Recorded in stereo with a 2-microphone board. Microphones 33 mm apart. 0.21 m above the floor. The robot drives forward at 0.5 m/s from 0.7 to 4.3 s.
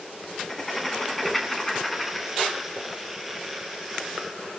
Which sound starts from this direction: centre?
Writing, at 0.3 s.